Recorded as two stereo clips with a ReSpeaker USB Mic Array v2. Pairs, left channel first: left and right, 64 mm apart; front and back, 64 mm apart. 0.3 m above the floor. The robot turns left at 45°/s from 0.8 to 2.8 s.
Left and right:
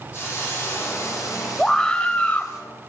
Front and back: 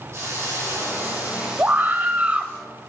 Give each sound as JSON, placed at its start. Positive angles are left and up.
{"t": 0.1, "sound": "a hiss", "azimuth_deg": 135, "distance_m": 8.5}
{"t": 1.6, "sound": "a scream", "azimuth_deg": 165, "distance_m": 1.1}